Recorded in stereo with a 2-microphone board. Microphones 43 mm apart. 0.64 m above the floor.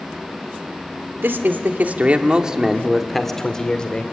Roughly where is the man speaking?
Right.